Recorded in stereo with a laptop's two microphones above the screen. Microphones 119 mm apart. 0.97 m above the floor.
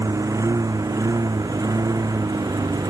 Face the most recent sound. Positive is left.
turn(degrees=-30)  # may be behind; listen again after turning